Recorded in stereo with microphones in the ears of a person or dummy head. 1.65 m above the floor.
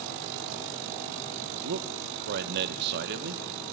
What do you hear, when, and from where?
1.6 s a man speaking: 55° right (ahead or behind), 1.4 m